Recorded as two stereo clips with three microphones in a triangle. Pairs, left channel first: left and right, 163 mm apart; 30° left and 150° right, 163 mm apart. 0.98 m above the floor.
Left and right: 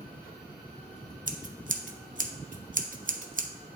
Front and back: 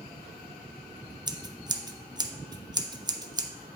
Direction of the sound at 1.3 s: 90° right.